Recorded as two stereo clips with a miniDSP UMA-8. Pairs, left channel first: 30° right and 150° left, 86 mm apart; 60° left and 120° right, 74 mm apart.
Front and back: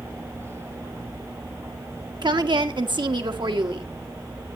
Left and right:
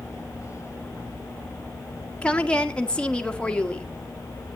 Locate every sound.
2.2 s a woman speaking: 135° left, 1.4 m